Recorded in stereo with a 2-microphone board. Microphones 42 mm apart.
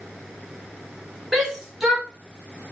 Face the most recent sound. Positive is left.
turn(degrees=0)  # may be behind; listen again after turning